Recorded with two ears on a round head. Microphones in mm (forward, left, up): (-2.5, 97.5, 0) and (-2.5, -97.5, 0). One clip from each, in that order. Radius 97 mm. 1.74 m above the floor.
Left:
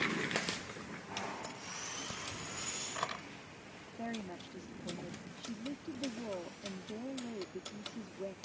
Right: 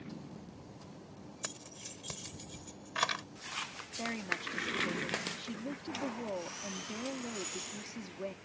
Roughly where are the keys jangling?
Right.